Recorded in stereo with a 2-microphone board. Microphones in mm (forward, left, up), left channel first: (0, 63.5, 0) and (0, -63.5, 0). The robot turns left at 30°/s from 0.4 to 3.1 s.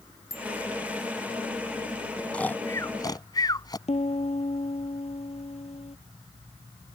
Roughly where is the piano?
Left.